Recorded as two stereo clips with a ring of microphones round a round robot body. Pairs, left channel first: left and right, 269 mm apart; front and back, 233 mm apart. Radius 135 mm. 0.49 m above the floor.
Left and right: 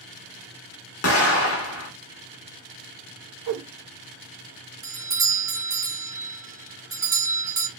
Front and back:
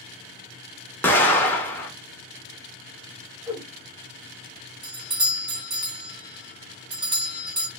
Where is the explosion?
80° left, 1.2 m.